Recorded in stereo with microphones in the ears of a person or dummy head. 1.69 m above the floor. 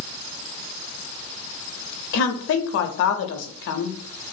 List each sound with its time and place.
2.1 s a woman speaking: 65° left (ahead or behind), 0.6 m